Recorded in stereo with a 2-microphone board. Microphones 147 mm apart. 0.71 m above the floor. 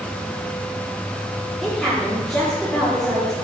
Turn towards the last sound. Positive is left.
turn(degrees=5)  # may be behind; listen again after turning